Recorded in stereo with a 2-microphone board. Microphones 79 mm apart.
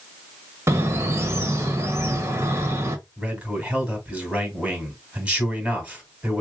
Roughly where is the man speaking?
Centre.